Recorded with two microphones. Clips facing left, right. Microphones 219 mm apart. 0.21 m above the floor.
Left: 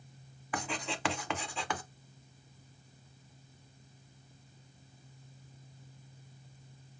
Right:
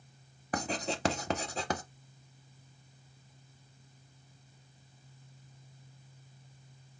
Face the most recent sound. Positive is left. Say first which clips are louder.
# right 4 dB
turn(degrees=-40)  # may be behind; listen again after turning